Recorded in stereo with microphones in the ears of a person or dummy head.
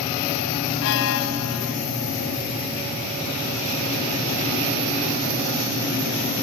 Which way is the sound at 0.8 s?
75° left (ahead or behind).